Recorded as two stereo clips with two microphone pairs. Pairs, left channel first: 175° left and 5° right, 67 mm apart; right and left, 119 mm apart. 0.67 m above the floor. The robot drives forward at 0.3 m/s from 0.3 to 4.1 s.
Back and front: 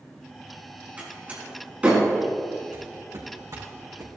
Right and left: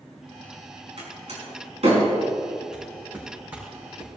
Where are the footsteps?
5° left, 3.5 m; by 4.2 s 20° left, 4 m.